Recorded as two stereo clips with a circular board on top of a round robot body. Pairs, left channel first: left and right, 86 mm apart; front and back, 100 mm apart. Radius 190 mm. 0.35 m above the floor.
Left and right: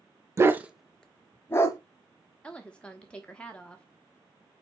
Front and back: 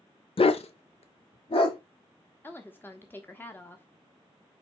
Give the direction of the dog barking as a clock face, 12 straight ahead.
1 o'clock.